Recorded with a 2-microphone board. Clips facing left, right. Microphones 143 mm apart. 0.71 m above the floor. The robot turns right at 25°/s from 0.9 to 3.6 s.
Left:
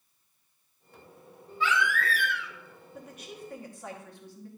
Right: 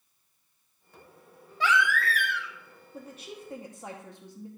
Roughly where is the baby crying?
Right.